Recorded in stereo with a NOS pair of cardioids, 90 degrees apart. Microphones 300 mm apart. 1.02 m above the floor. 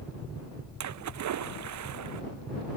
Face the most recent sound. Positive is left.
turn(degrees=-65)